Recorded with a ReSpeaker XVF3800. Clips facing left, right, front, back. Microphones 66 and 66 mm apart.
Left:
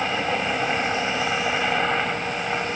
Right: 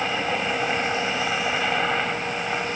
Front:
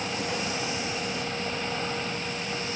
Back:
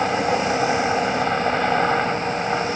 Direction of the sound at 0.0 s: 175° left.